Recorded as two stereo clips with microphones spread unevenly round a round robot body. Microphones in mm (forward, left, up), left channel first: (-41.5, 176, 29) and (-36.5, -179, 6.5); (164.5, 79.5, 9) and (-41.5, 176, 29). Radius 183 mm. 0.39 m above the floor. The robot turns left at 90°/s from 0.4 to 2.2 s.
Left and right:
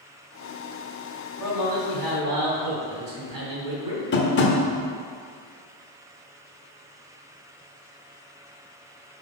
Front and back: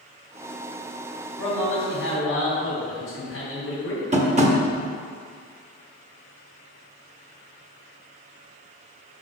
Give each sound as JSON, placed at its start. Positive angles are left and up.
{"t": 1.4, "sound": "a man speaking", "azimuth_deg": 5, "distance_m": 3.0}
{"t": 4.1, "sound": "tapping", "azimuth_deg": 120, "distance_m": 1.3}